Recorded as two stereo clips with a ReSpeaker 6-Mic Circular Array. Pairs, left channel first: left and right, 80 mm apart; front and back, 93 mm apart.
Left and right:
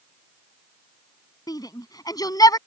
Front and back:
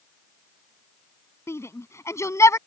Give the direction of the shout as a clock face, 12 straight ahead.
10 o'clock.